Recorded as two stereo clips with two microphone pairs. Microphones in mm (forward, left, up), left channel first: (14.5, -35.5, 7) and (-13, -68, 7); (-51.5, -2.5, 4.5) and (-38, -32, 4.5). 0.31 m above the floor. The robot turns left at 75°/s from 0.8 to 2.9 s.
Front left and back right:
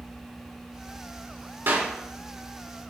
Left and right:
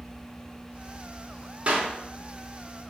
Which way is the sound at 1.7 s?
115° right.